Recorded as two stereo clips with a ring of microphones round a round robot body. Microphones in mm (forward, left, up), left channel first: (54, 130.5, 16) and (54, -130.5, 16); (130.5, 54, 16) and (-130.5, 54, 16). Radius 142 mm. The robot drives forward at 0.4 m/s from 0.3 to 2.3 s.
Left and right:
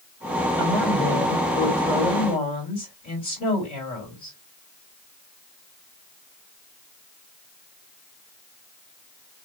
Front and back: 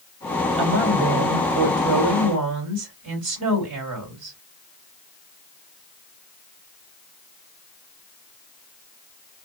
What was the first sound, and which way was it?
A woman speaking, 150° left.